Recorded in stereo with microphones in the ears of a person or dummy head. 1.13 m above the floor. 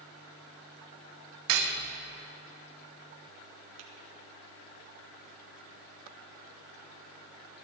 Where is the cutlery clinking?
65° right (ahead or behind), 0.9 m.